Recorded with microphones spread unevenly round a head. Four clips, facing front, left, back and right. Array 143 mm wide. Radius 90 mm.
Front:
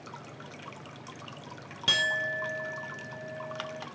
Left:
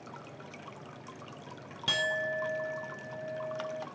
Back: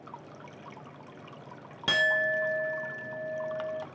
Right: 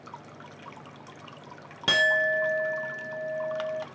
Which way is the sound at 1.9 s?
115° right.